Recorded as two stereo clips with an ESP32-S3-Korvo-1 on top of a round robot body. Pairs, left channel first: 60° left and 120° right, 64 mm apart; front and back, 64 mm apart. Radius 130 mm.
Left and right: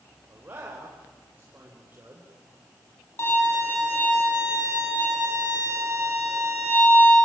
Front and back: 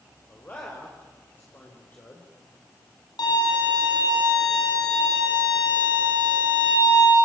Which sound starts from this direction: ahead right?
A man speaking, at 0.3 s.